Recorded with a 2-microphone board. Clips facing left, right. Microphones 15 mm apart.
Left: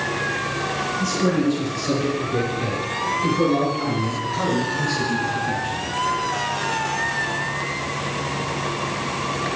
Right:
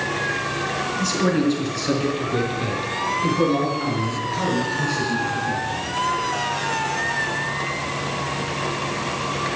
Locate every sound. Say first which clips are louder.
1.0 s a man speaking: right 1 dB; 30° right (ahead or behind), 3.5 m; by 5.8 s 20° left (ahead or behind), 3.5 m